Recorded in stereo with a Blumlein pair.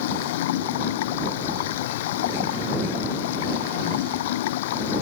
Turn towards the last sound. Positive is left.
turn(degrees=55)